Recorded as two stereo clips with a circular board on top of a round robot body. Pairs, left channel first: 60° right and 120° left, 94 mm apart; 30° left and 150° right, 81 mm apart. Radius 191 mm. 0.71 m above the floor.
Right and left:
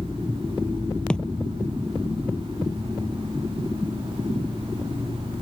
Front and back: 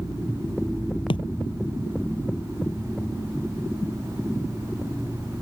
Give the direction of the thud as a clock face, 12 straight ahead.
11 o'clock.